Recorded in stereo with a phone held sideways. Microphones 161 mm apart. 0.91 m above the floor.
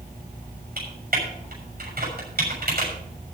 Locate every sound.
0.8 s typing on a keyboard: 70° right (ahead or behind), 6 m